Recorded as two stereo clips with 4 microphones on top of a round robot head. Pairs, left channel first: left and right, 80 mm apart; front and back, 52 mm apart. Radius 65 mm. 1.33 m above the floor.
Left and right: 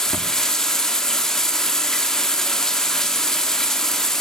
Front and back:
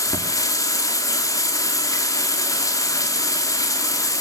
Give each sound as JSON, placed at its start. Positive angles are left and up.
{"t": 0.0, "sound": "running water", "azimuth_deg": 5, "distance_m": 2.5}